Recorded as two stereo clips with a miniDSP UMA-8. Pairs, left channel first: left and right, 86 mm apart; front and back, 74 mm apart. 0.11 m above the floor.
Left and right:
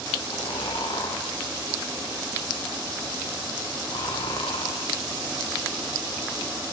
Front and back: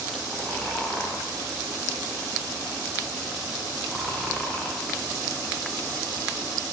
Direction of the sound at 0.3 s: 80° left.